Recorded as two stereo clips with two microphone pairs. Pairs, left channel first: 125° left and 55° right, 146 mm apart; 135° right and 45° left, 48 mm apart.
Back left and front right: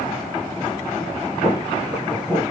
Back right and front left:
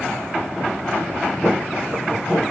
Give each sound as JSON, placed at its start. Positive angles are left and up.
{"t": 1.4, "sound": "footsteps", "azimuth_deg": 25, "distance_m": 1.9}